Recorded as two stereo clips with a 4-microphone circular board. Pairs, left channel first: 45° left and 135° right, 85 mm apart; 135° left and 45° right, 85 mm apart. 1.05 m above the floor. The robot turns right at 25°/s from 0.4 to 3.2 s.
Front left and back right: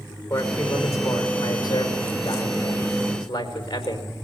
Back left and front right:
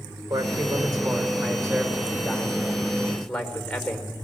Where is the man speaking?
20° right, 4.5 m; by 4.1 s 50° left, 4.5 m.